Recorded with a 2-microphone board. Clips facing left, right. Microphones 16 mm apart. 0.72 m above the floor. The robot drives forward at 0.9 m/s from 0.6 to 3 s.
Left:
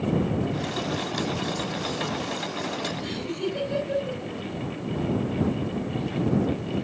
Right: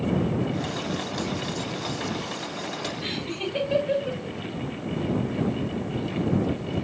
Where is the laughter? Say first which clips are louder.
Even; 60° right (ahead or behind), 3.5 m.